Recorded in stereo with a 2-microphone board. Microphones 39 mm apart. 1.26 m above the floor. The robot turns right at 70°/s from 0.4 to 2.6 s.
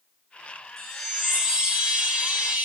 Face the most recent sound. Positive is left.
turn(degrees=-75)